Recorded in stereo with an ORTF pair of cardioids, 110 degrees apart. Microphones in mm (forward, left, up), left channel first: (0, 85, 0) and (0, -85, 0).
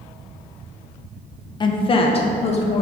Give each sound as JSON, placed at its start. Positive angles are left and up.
{"t": 1.6, "sound": "a woman speaking", "azimuth_deg": 30, "distance_m": 0.9}